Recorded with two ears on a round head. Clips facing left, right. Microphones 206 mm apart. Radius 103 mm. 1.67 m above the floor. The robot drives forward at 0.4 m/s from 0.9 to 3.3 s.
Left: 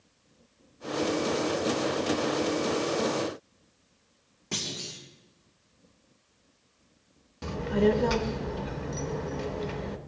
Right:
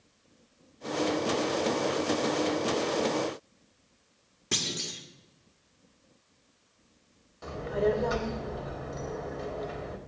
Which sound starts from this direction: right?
A clunk, at 4.5 s.